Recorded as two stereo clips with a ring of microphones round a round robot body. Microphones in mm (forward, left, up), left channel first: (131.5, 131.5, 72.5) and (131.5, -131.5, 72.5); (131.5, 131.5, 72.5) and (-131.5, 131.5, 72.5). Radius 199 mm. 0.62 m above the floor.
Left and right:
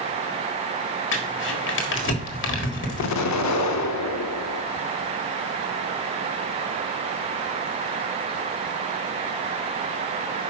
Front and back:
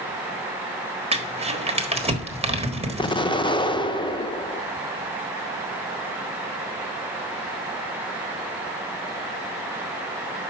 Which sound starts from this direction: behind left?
Crumpling, at 1.1 s.